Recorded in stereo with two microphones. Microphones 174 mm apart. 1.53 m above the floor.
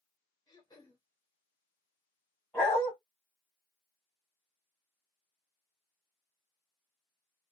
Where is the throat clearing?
20° left (ahead or behind), 0.9 m.